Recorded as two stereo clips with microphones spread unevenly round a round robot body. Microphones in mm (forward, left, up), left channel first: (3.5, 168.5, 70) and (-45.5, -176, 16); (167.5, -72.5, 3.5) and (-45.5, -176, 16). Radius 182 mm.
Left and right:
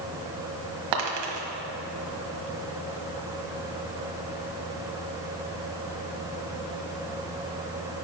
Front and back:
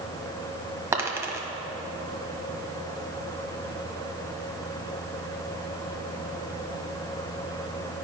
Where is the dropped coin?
75° right, 1.2 m.